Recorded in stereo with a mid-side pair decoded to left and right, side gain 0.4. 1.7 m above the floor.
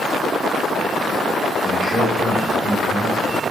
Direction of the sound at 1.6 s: 25° left.